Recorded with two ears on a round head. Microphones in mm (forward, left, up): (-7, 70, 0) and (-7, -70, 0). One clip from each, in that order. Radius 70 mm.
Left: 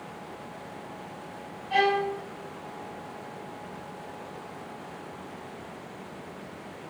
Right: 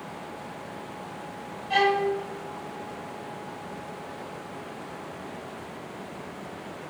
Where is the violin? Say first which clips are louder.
Right 1 dB; 55° right (ahead or behind), 3 m.